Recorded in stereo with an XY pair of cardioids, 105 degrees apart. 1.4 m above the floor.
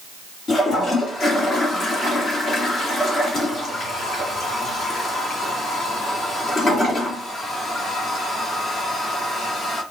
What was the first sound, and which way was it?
A toilet flushing, 45° left.